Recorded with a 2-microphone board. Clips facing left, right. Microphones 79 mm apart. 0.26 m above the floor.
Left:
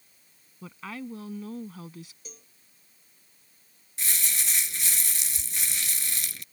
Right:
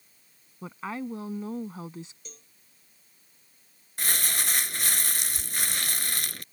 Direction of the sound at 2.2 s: 5° left (ahead or behind).